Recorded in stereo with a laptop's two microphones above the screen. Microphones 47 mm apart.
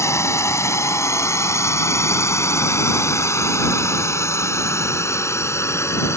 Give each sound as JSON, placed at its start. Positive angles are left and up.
{"t": 0.0, "sound": "a drone", "side_deg": 80}